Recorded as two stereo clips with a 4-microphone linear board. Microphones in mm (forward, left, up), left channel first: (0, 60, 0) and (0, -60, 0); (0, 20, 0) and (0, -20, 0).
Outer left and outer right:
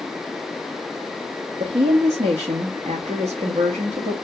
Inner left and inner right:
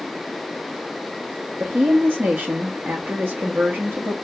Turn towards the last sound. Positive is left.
turn(degrees=-70)  # may be behind; listen again after turning